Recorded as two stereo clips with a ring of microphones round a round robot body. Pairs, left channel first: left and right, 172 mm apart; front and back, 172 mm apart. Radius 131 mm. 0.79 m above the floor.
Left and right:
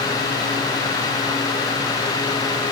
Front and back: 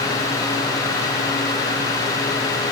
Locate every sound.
Only background noise.